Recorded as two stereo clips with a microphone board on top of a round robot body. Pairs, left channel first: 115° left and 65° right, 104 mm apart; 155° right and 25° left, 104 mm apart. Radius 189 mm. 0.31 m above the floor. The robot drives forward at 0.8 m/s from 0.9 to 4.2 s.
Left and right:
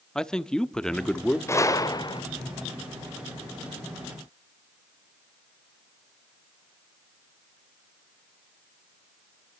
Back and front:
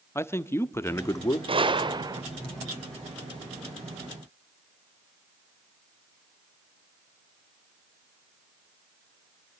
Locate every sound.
0.1 s a man speaking: 175° right, 1.5 m
1.5 s a gunshot: 50° left, 1.6 m; by 2.2 s 75° left, 1.4 m